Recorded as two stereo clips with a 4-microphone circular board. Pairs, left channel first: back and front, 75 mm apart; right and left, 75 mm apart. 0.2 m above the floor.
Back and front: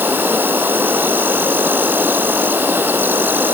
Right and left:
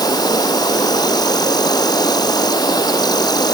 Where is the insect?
65° right.